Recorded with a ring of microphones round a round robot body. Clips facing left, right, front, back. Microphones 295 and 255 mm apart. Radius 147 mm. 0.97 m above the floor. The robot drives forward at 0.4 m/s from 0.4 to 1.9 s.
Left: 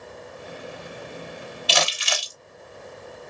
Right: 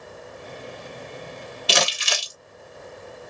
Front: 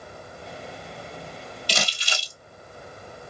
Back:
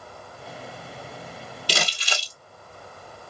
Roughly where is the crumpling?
Behind right.